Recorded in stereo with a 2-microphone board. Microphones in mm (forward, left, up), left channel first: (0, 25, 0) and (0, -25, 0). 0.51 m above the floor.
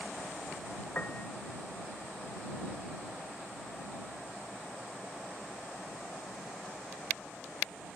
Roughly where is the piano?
Left.